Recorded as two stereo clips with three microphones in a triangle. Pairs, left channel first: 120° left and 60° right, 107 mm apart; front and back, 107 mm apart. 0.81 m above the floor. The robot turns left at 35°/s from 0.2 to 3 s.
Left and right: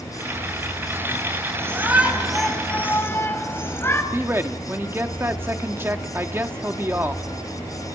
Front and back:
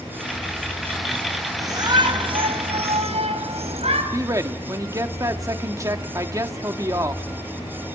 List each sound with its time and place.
1.6 s a shout: 125° right, 6 m; by 4.0 s 175° right, 6 m
4.1 s a man speaking: 125° right, 1.7 m